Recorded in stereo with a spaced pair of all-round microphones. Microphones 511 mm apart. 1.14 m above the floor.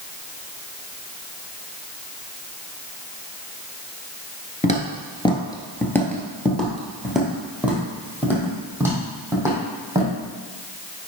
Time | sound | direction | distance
4.6 | footsteps | 15° left (ahead or behind) | 1.1 m